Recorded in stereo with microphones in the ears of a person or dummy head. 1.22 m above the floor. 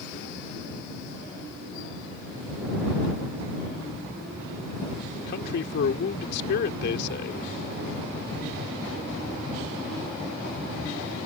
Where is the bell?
No bell in this recording.